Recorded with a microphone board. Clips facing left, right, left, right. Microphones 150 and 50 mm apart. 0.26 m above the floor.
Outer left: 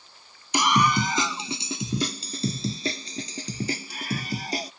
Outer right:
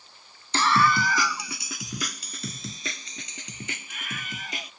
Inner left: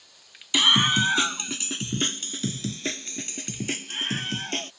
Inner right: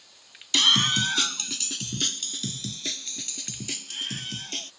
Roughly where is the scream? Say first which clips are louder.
Even, inner left 2 dB; centre.